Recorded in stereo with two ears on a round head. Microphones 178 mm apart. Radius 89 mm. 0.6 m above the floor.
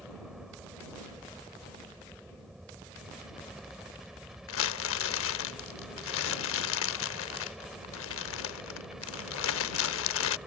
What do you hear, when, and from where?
0.0 s a helicopter: centre (ahead or behind)
4.5 s crumpling: 70° left (ahead or behind)